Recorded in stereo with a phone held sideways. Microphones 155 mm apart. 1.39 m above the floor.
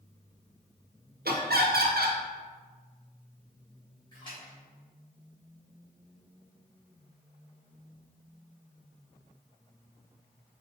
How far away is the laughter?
About 0.7 m.